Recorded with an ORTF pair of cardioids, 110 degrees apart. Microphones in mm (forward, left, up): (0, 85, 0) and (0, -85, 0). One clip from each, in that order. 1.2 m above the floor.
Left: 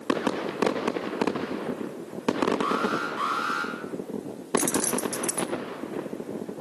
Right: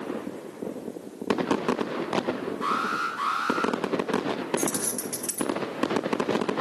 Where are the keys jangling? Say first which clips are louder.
Left 3 dB; 30° left, 1.3 m.